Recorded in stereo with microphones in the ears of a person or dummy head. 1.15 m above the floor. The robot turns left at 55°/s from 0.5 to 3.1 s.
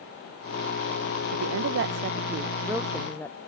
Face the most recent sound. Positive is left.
turn(degrees=170)